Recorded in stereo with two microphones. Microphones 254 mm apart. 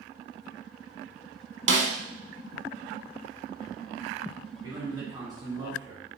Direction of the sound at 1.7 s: 50° right (ahead or behind).